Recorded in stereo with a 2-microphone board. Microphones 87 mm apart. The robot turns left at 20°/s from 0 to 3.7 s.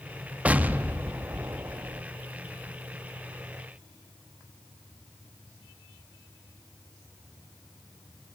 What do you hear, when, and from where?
0.5 s an explosion: 20° right, 0.7 m; by 2.0 s 50° right, 0.7 m